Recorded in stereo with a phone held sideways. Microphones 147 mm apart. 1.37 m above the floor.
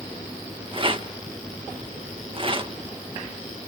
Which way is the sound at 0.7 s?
40° right (ahead or behind).